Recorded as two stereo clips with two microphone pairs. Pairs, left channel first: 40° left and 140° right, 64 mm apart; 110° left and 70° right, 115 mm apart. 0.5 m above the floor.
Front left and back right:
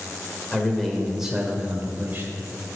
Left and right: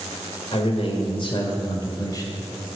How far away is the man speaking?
About 1.6 m.